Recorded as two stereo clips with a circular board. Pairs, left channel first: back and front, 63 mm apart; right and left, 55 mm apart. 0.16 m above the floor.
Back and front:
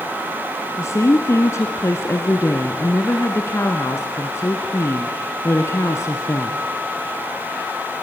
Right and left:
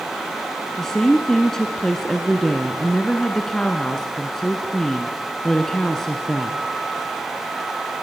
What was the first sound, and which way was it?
A woman speaking, 170° right.